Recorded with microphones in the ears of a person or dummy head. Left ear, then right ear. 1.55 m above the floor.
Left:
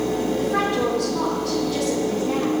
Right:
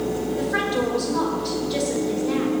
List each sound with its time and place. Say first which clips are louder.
0.4 s a woman speaking: left 1 dB; 40° right (ahead or behind), 5 m